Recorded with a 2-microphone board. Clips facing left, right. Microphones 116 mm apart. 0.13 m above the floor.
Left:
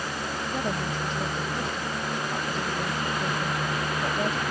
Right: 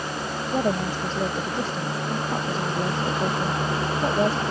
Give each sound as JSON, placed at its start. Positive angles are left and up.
{"t": 0.5, "sound": "a woman speaking", "side_deg": -30}